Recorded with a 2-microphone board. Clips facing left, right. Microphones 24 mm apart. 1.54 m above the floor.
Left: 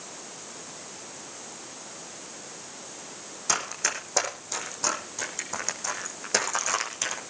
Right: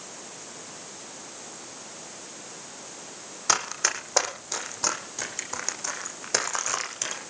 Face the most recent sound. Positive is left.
turn(degrees=0)  # may be behind; listen again after turning